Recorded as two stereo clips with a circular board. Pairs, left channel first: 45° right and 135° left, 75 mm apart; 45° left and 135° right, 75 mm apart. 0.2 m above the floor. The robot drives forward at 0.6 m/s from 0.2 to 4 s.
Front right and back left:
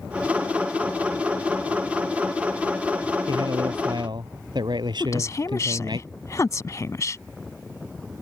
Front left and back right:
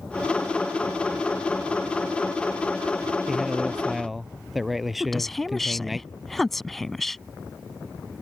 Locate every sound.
3.3 s a man speaking: 135° left; by 6.0 s 140° left
5.0 s a woman speaking: 40° right